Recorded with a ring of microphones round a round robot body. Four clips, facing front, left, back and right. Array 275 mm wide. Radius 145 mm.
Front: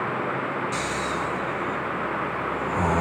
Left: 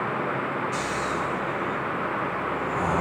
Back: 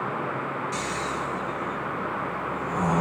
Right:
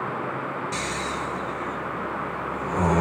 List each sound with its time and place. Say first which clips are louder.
0.7 s snoring: left 2 dB, front 2 dB; 65° right, 1.1 m